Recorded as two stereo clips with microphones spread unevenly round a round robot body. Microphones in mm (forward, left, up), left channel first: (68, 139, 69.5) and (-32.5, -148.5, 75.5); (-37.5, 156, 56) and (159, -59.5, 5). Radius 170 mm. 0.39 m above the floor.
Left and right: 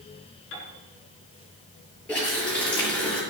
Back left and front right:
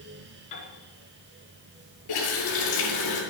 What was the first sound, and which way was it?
A piano, 120° left.